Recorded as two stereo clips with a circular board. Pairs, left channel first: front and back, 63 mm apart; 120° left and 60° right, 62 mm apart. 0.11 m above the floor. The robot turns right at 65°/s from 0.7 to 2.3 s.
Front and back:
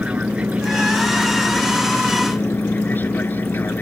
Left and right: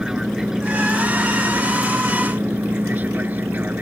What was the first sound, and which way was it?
An aircraft, 130° right.